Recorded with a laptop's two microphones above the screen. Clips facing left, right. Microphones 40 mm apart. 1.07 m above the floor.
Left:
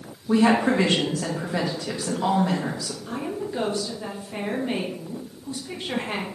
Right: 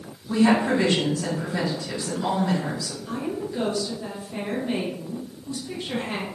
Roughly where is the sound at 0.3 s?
Left.